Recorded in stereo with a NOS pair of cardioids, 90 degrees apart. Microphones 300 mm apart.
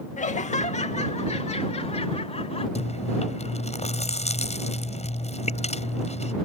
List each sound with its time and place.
0.2 s laughter: 25° left; by 2.6 s 20° left
2.8 s chewing: 20° left